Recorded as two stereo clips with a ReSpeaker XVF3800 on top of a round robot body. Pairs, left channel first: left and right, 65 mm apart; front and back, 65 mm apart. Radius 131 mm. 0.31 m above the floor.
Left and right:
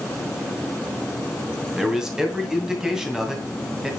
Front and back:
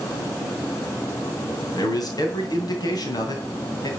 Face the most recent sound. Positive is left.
turn(degrees=-10)